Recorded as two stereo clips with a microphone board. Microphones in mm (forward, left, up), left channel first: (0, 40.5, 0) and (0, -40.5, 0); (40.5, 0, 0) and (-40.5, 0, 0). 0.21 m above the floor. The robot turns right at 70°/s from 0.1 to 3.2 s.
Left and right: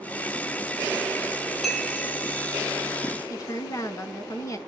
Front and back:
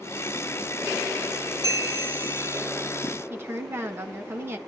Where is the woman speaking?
125° left, 1.7 m.